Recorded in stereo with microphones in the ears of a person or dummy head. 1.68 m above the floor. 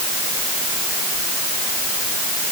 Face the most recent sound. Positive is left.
No sound to turn to.